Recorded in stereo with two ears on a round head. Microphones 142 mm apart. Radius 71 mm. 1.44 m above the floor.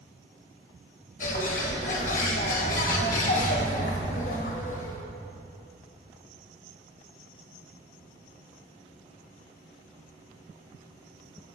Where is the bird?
50° left (ahead or behind), 1.1 m.